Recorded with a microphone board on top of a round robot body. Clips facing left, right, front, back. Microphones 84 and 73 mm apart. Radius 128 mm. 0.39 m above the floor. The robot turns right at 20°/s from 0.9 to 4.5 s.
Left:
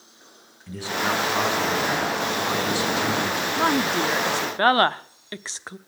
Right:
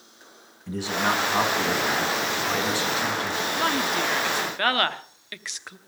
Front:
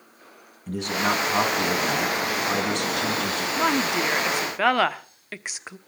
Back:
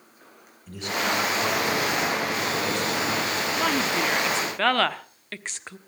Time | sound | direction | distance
0.7 | a man speaking | 20° right | 5 m
3.6 | a woman speaking | 55° left | 1.0 m